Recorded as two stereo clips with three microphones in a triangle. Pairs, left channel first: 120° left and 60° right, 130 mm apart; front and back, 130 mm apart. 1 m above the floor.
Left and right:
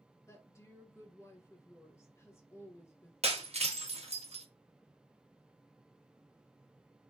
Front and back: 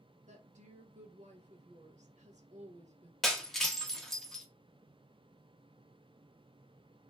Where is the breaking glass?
85° right, 0.6 m.